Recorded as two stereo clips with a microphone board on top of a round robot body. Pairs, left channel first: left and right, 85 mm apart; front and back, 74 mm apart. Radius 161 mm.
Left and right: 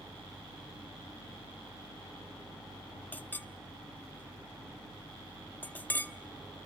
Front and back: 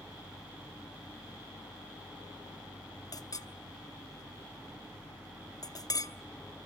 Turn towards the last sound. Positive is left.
turn(degrees=25)